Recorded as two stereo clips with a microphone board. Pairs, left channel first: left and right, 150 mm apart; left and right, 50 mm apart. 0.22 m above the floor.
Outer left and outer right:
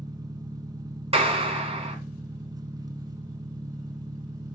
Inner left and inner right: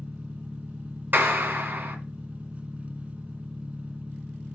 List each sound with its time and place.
0.0 s an engine running: 25° right (ahead or behind), 0.8 m
1.1 s a clap: 40° right (ahead or behind), 1.9 m